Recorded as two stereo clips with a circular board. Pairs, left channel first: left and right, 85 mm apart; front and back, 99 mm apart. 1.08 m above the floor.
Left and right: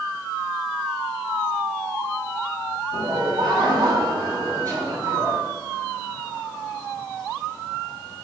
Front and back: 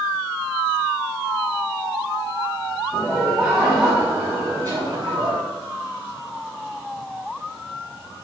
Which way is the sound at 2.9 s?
85° right.